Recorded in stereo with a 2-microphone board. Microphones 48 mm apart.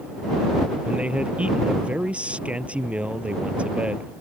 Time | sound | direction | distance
0.8 | a man speaking | 25° right (ahead or behind) | ?